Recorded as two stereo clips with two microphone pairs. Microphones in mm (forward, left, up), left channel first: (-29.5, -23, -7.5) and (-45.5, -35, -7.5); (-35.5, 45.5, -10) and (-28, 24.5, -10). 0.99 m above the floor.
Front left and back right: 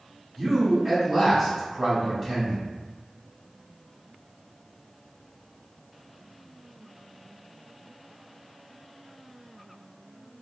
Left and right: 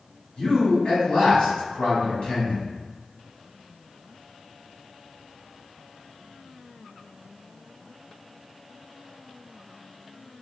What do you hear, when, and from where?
0.4 s a man speaking: 125° left, 1.3 m